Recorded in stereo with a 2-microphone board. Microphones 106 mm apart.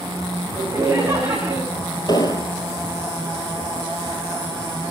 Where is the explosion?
40° left (ahead or behind), 1.0 m.